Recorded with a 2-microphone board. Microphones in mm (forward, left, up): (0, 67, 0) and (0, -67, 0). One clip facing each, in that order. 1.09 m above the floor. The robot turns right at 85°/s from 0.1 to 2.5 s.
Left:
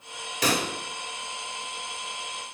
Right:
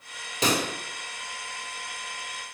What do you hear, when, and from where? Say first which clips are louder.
0.4 s a pop: right 1 dB; 25° right (ahead or behind), 0.9 m; by 0.7 s 10° right (ahead or behind), 0.9 m